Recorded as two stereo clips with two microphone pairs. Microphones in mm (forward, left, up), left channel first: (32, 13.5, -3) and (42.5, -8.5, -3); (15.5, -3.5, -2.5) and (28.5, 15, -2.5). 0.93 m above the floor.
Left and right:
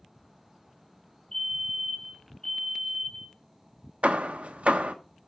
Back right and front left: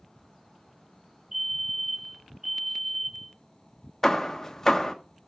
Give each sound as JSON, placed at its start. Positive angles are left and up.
{"t": 1.3, "sound": "a fire alarm", "azimuth_deg": 100, "distance_m": 1.2}
{"t": 4.0, "sound": "hammering", "azimuth_deg": -55, "distance_m": 1.0}